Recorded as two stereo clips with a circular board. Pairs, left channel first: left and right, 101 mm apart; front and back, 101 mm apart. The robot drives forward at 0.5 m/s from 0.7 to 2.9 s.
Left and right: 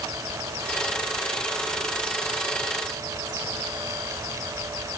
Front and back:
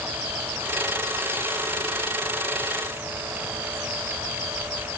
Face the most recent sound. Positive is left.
No sound to turn to.